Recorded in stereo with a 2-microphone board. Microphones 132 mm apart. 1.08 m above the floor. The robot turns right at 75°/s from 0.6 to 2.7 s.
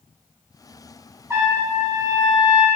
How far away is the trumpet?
About 1.3 m.